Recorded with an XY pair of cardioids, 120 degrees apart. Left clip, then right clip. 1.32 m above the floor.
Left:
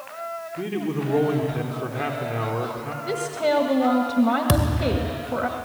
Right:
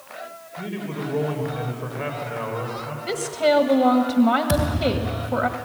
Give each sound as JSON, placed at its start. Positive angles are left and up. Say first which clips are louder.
{"t": 0.6, "sound": "a man speaking", "louder": "left 2 dB", "azimuth_deg": 65, "distance_m": 3.5}
{"t": 3.0, "sound": "a woman speaking", "louder": "right 3 dB", "azimuth_deg": -10, "distance_m": 1.5}
{"t": 4.5, "sound": "a thud", "louder": "right 1 dB", "azimuth_deg": 50, "distance_m": 3.0}